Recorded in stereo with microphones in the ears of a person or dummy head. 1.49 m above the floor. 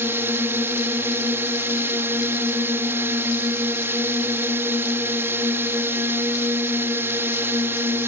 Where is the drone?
10° right (ahead or behind).